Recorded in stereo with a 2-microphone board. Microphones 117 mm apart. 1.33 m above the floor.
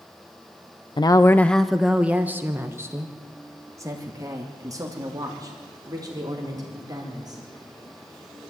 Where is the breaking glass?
No breaking glass in this recording.